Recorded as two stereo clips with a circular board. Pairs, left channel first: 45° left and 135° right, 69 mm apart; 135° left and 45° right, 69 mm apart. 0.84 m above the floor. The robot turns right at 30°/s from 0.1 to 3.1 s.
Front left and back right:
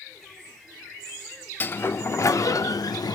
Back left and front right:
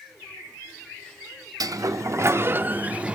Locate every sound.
1.6 s a sliding door: 15° right, 0.7 m; by 3.2 s 30° left, 0.7 m